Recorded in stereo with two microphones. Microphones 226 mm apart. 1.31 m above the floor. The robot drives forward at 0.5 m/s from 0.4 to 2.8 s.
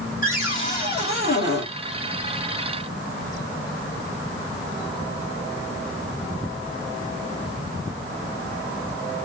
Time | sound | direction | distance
0.2 | a cupboard door | 35° left (ahead or behind) | 3 m